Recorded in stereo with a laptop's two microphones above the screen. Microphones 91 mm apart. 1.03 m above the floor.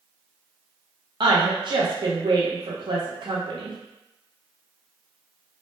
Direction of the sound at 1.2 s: 55° right (ahead or behind).